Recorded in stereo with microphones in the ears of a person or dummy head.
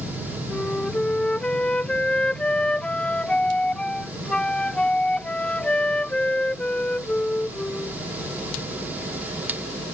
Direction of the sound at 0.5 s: 5° left (ahead or behind).